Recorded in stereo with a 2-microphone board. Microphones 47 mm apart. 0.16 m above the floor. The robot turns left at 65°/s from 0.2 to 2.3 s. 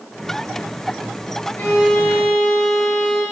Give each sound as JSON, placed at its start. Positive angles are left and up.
{"t": 1.6, "sound": "a violin", "azimuth_deg": 125, "distance_m": 3.0}